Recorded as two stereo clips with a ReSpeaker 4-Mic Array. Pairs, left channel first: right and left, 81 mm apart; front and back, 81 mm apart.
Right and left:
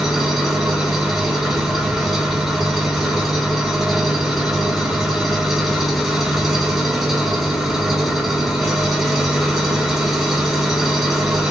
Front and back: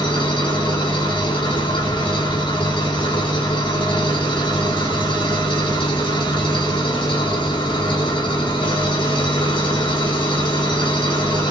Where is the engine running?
5° left, 1.3 m.